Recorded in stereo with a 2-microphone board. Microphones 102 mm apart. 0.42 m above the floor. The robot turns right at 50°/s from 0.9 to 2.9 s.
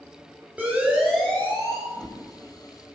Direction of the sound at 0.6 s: 10° right (ahead or behind).